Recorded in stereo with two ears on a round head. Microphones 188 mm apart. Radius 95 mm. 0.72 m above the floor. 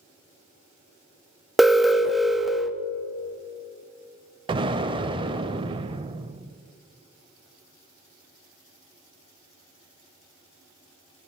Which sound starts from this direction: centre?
An alarm, at 1.6 s.